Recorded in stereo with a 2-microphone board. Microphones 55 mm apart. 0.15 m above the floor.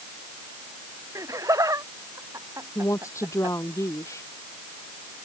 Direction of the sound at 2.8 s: 65° left (ahead or behind).